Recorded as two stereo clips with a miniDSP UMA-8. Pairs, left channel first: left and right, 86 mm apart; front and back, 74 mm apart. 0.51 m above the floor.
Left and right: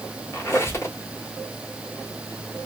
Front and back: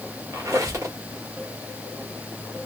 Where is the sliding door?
I don't hear a sliding door.